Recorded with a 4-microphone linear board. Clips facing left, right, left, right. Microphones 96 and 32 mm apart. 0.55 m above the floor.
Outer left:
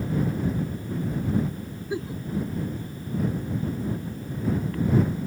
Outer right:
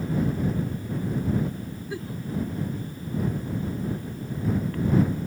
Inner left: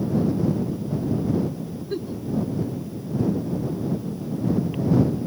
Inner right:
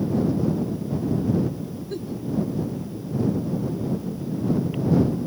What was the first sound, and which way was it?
A giggle, 20° left (ahead or behind).